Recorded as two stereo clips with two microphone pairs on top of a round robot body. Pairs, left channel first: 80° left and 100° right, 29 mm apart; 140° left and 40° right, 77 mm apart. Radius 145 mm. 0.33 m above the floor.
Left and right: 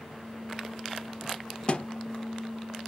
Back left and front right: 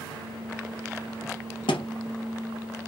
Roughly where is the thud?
Behind left.